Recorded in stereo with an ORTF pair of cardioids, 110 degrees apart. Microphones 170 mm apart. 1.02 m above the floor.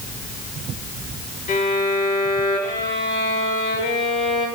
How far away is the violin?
About 3.5 m.